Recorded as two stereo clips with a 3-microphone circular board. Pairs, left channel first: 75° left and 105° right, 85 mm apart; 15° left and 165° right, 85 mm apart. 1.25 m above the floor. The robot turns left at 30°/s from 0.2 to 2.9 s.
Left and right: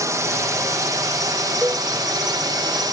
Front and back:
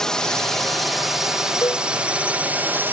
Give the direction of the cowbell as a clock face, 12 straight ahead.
1 o'clock.